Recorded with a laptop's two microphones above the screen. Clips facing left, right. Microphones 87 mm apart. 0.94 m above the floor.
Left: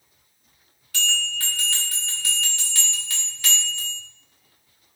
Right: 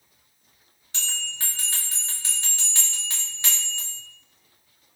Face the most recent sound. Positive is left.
turn(degrees=-25)  # may be behind; listen again after turning